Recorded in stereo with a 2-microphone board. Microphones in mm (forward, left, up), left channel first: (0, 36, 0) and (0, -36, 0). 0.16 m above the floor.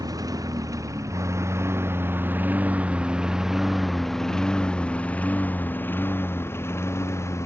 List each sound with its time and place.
0.0 s a lawn mower: 60° right (ahead or behind); by 7.5 s 40° left (ahead or behind)